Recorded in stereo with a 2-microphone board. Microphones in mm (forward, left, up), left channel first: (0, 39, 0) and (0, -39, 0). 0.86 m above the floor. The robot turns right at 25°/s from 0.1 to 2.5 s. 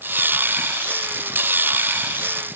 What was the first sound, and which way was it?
Only background noise.